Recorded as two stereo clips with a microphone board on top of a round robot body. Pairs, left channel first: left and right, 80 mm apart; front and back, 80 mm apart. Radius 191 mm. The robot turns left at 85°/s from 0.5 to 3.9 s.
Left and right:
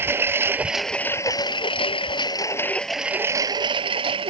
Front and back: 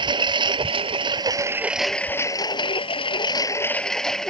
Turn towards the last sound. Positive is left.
turn(degrees=-85)